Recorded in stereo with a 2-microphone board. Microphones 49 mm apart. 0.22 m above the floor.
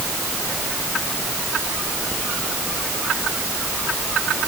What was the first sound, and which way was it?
Only background noise.